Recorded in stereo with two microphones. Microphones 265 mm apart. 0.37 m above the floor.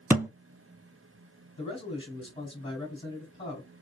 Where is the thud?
10° right (ahead or behind), 0.5 m.